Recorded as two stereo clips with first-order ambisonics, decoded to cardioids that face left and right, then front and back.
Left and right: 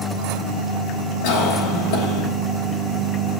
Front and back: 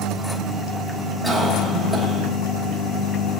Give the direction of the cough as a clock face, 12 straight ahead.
9 o'clock.